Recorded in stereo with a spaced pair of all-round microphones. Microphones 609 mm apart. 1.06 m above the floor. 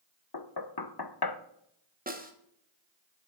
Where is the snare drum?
15° right (ahead or behind), 1.4 m.